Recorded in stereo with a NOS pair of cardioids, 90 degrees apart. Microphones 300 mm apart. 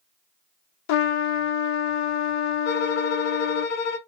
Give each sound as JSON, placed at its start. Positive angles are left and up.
{"t": 0.9, "sound": "a trumpet", "azimuth_deg": 65, "distance_m": 0.6}
{"t": 2.6, "sound": "a violin", "azimuth_deg": 65, "distance_m": 1.0}